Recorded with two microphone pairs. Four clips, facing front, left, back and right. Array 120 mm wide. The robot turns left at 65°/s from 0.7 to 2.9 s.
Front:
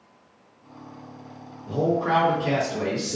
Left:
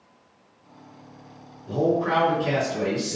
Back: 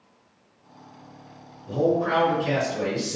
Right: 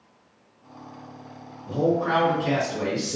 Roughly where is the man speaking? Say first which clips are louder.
Even, back 1 dB; ahead.